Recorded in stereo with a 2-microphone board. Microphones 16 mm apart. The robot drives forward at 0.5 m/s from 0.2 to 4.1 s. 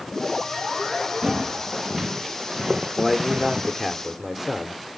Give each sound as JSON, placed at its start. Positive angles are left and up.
{"t": 1.2, "sound": "footsteps", "side_deg": -45, "distance_m": 3.0}
{"t": 3.0, "sound": "a man speaking", "side_deg": -15, "distance_m": 1.1}